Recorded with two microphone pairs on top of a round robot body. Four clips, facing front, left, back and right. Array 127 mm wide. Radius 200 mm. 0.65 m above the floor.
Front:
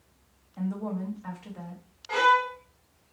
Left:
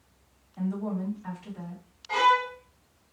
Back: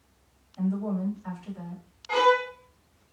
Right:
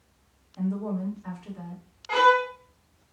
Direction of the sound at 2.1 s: 70° right.